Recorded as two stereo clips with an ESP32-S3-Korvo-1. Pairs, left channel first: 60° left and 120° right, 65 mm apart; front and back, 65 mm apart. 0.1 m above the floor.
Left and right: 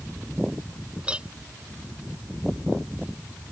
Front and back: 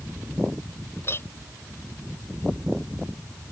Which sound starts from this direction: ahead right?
A clink, at 1.0 s.